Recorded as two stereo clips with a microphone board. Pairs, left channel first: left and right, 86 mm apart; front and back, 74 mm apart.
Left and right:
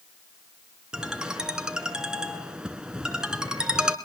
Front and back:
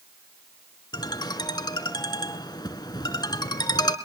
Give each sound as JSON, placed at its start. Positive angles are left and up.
{"t": 0.9, "sound": "a ringtone", "azimuth_deg": -10, "distance_m": 1.6}